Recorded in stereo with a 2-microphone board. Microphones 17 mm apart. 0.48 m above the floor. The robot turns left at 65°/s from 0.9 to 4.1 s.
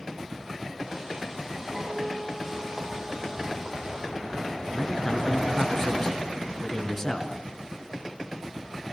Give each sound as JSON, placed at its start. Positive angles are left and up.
{"t": 1.7, "sound": "a guitar", "azimuth_deg": 170, "distance_m": 10.0}
{"t": 4.7, "sound": "a man speaking", "side_deg": 20, "distance_m": 4.5}